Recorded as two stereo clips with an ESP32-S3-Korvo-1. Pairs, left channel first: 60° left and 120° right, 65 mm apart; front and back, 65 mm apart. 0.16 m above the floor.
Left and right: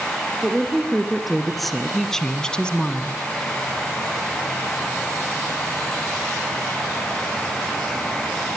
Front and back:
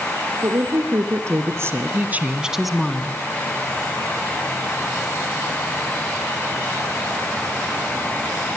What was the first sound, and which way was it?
A woman speaking, 155° left.